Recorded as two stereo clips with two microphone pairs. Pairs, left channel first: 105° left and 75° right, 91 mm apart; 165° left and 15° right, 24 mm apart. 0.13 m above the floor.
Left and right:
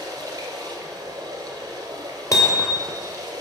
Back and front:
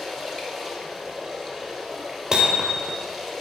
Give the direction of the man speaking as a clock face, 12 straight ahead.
No man speaking in this recording.